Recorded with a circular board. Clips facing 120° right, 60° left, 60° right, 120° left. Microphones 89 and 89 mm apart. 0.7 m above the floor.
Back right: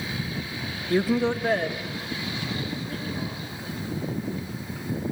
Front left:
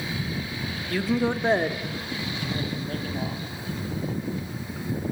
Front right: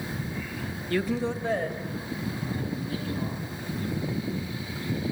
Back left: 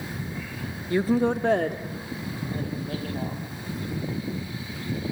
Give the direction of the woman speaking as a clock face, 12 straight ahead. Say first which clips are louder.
Back right 2 dB, back left 5 dB; 6 o'clock.